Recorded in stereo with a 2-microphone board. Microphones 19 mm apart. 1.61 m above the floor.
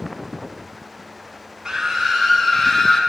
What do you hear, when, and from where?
1.6 s a scream: 30° right (ahead or behind), 1.4 m; by 3.0 s 20° left (ahead or behind), 2.5 m